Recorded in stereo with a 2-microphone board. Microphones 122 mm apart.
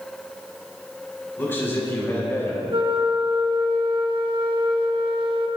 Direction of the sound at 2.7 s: 45° right (ahead or behind).